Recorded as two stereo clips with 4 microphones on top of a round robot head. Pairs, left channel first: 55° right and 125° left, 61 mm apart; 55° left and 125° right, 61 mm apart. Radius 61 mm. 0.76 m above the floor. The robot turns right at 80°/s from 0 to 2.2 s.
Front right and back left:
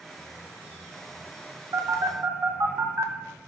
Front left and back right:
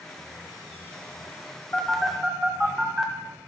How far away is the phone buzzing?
About 1.3 m.